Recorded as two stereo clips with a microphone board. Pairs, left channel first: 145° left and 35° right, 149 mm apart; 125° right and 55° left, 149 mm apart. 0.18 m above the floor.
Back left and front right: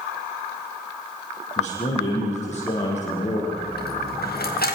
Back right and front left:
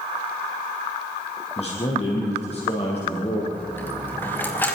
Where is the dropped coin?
155° left, 4.5 m.